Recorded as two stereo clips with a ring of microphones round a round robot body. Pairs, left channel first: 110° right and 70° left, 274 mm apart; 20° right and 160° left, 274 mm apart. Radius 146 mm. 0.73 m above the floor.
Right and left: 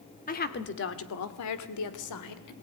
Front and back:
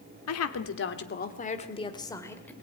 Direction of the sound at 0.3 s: 50° right.